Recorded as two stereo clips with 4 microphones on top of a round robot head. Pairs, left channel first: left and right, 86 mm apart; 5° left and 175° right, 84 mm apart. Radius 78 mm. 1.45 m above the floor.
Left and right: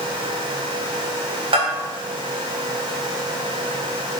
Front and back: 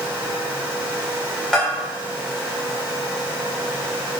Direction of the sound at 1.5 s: 75° right.